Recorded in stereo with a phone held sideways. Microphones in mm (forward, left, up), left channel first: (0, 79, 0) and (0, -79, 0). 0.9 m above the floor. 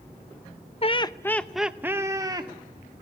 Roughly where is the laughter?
Left.